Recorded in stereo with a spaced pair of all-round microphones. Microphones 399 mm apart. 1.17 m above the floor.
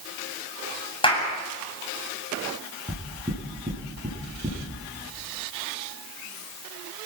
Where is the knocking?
15° right (ahead or behind), 9.5 m.